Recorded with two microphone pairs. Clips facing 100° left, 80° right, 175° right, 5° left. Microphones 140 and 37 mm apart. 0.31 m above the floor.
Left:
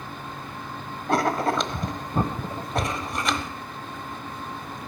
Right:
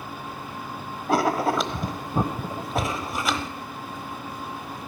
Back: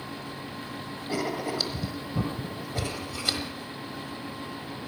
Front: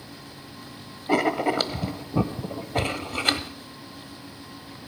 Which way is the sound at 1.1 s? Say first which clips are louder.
Right 1 dB, front 8 dB; 5° left.